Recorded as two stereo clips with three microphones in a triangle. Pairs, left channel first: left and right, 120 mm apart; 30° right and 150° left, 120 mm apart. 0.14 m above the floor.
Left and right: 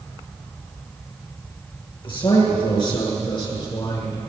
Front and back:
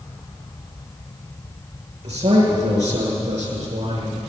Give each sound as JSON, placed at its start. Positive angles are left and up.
{"t": 2.0, "sound": "a man speaking", "azimuth_deg": 130, "distance_m": 7.5}